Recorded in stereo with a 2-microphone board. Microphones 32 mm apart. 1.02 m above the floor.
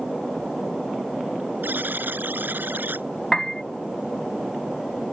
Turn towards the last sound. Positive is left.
turn(degrees=15)  # may be behind; listen again after turning